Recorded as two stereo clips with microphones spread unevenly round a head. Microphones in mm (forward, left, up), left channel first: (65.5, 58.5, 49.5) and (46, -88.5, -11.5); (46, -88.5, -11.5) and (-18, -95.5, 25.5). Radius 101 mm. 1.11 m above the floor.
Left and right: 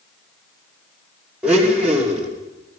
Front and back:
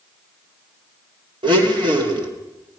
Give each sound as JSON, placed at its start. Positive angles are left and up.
{"t": 1.4, "sound": "a blender", "azimuth_deg": 180, "distance_m": 2.5}